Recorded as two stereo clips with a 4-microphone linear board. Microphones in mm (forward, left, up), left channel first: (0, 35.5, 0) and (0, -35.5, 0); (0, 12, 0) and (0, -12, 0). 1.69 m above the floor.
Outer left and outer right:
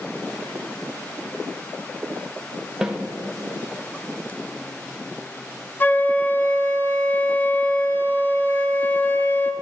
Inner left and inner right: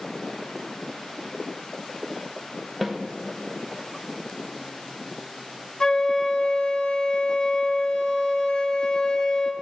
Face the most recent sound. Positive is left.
turn(degrees=30)  # may be behind; listen again after turning